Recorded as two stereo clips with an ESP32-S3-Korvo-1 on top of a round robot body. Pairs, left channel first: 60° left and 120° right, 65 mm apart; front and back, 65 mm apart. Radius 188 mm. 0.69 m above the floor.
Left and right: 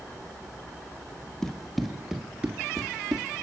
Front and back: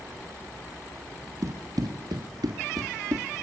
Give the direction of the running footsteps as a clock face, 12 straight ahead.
7 o'clock.